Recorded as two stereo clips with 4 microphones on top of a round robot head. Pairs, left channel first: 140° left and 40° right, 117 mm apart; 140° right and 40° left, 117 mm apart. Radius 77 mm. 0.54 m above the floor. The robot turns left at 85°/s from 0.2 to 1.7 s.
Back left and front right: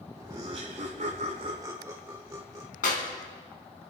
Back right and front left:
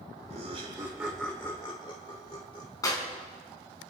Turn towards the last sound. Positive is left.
turn(degrees=155)